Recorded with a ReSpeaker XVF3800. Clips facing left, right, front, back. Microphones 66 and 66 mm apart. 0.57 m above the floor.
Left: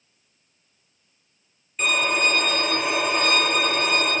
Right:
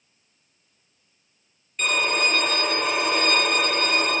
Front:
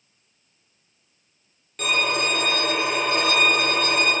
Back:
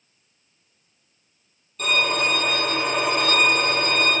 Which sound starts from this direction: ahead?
A violin, at 1.8 s.